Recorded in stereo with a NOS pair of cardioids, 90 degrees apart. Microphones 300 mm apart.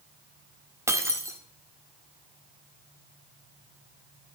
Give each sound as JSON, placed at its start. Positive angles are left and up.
{"t": 0.9, "sound": "breaking glass", "azimuth_deg": -10, "distance_m": 1.5}